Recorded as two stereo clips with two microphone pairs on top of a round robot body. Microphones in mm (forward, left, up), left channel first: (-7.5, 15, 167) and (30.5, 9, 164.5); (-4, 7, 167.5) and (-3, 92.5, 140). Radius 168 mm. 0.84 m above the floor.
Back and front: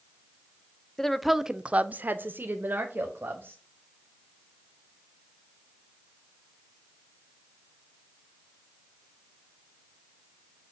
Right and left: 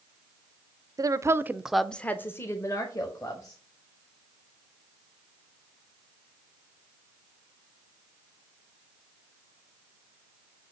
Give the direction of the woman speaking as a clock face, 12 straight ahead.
9 o'clock.